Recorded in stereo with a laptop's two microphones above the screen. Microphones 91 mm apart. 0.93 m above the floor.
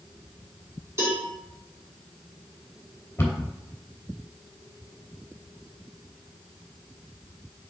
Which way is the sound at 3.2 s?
25° left (ahead or behind).